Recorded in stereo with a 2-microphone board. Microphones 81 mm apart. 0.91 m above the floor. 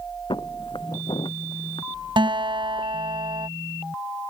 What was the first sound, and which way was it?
Footsteps, 75° left (ahead or behind).